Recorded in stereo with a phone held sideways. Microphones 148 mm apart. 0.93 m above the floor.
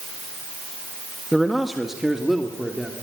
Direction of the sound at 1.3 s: Centre (ahead or behind).